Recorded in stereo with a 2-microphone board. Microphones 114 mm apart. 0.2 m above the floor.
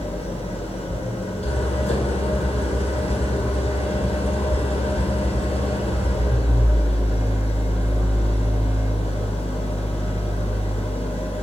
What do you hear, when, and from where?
0.0 s an engine running: 75° left (ahead or behind), 1.5 m